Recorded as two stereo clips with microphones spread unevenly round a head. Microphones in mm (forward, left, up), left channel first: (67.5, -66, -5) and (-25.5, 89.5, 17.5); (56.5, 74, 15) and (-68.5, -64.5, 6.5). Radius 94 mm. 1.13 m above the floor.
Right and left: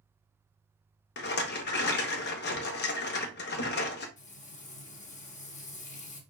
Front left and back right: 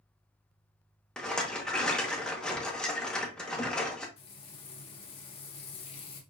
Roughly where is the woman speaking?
I don't hear a woman speaking.